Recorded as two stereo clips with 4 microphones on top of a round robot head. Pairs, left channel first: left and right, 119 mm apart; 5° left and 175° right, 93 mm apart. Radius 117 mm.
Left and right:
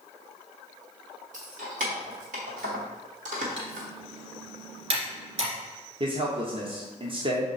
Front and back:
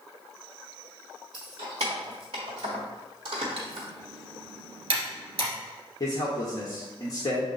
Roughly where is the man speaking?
Ahead right.